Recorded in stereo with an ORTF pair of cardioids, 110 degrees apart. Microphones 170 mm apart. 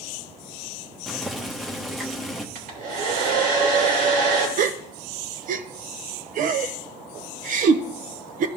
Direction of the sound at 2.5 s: 60° right.